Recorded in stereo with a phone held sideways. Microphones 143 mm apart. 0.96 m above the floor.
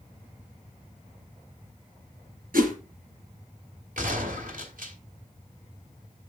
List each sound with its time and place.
2.5 s a whoosh: 80° right, 4 m
4.0 s a gunshot: 70° right (ahead or behind), 2.5 m